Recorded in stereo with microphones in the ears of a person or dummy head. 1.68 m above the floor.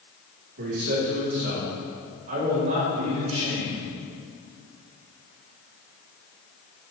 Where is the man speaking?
60° right (ahead or behind), 4 m; by 3.9 s 30° right (ahead or behind), 3.5 m.